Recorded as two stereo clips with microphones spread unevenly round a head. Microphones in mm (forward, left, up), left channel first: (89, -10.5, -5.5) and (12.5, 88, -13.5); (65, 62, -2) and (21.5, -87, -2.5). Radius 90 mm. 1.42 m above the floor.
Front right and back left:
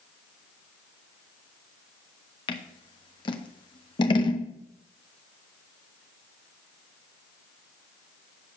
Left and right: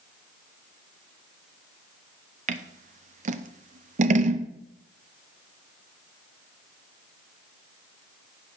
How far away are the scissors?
About 0.7 m.